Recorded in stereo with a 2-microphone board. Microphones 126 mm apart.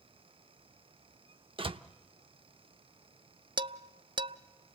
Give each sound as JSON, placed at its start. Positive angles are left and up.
{"t": 1.6, "sound": "a door slam", "side_deg": -45, "distance_m": 0.6}
{"t": 3.6, "sound": "dishes clattering", "side_deg": -40, "distance_m": 0.5}